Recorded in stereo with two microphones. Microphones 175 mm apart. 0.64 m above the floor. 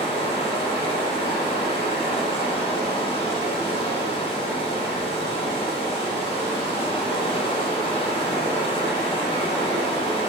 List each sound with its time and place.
0.0 s running water: 35° left (ahead or behind), 0.9 m